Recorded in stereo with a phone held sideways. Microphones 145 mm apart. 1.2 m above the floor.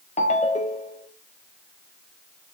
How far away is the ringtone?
About 0.6 m.